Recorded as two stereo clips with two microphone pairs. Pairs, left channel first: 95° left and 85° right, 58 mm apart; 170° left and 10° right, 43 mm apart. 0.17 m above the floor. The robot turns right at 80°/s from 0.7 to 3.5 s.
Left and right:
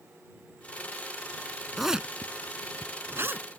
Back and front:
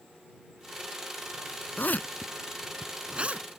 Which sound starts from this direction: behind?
A zipper, at 1.8 s.